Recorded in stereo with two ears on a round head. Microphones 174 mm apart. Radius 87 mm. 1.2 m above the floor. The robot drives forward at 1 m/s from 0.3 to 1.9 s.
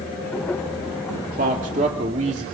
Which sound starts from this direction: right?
A man speaking, at 1.1 s.